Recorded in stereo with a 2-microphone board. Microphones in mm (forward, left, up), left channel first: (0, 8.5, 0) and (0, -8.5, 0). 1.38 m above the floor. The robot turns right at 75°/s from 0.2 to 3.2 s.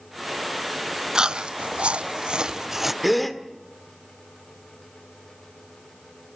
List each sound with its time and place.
1.1 s chewing: 35° right (ahead or behind), 0.6 m; by 2.9 s 10° right (ahead or behind), 0.6 m
3.0 s a gasp: 5° right (ahead or behind), 1.6 m; by 3.4 s 5° left (ahead or behind), 1.6 m